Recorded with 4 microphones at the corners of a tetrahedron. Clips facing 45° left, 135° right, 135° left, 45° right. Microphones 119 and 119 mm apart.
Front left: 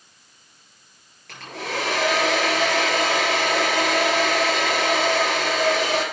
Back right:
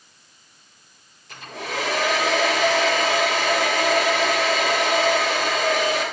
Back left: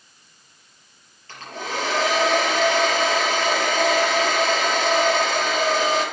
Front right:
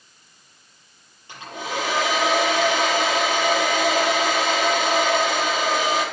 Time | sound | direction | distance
1.3 | a hair dryer | 30° left | 6.5 m